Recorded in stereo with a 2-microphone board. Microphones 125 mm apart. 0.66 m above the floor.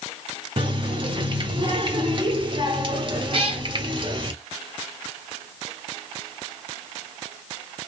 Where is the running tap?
40° right (ahead or behind), 1.3 m.